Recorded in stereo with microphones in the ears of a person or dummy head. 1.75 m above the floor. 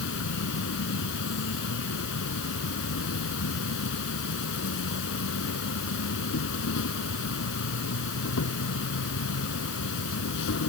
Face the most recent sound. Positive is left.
turn(degrees=65)  # may be behind; listen again after turning